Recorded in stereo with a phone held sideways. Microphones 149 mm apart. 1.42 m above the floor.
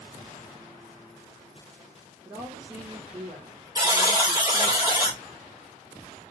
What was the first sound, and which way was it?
A woman speaking, 20° right (ahead or behind).